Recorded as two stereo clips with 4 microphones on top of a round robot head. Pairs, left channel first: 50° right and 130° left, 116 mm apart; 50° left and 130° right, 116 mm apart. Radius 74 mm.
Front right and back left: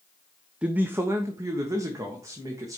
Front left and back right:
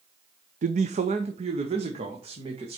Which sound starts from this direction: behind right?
A man speaking, at 0.6 s.